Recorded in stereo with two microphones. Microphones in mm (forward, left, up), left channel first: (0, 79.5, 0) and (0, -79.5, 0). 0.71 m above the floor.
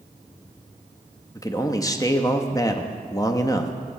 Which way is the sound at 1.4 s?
20° left (ahead or behind).